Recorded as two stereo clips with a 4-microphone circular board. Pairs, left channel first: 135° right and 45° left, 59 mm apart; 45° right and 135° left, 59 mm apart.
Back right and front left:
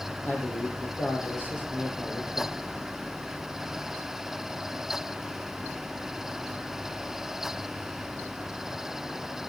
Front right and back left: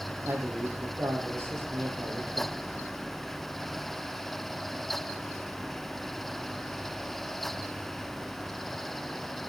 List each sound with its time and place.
0.2 s a man speaking: 175° left, 5 m